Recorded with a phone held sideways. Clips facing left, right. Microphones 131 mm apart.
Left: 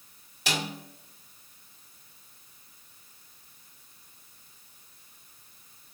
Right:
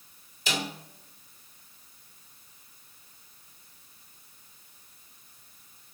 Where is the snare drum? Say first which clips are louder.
Even; 70° left (ahead or behind), 1.8 m.